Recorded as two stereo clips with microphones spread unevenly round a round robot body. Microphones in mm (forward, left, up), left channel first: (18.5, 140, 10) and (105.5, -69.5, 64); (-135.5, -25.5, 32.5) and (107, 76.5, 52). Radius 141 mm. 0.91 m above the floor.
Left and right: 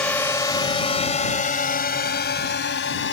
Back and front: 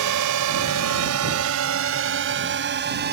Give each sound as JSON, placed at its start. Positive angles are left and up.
{"t": 0.0, "sound": "a drone", "azimuth_deg": 30}